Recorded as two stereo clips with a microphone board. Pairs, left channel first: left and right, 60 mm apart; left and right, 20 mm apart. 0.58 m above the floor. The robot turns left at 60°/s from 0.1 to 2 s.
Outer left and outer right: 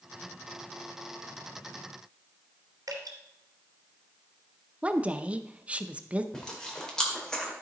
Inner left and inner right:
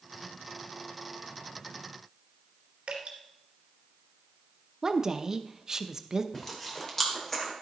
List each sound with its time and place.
2.9 s dripping: 75° right (ahead or behind), 2.5 m
4.8 s a woman speaking: 20° right (ahead or behind), 0.6 m
6.3 s chewing: 10° left (ahead or behind), 1.8 m